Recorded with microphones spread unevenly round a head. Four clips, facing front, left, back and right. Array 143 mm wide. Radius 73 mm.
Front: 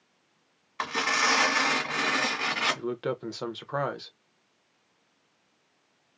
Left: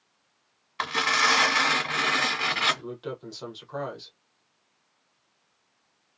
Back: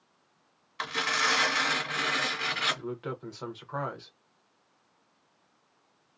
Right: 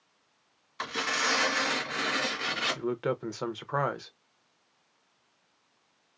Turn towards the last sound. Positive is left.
turn(degrees=-35)